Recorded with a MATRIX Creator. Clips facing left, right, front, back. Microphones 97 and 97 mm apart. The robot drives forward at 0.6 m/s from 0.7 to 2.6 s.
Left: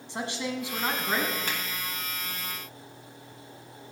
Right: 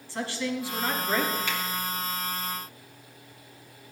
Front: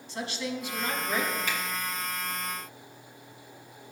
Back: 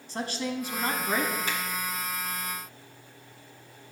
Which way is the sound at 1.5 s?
135° left.